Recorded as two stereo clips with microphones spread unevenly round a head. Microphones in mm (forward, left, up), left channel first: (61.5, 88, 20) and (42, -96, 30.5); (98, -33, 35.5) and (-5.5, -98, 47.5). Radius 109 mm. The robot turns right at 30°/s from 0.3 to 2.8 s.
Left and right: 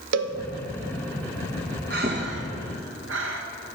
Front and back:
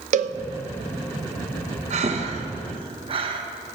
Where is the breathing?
140° right, 1.1 m; by 3.4 s 115° right, 1.1 m.